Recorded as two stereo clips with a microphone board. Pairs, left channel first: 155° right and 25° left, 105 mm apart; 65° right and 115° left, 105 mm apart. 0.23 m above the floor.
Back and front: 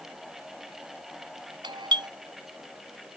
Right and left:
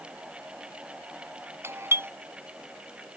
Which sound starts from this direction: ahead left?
A doorbell, at 1.6 s.